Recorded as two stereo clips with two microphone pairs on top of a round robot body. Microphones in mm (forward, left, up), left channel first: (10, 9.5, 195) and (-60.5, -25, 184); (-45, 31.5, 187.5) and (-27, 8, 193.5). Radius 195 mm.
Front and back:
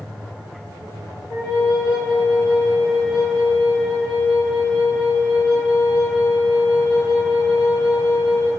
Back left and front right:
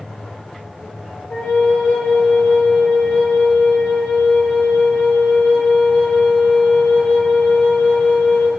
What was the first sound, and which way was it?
A flute, 70° left.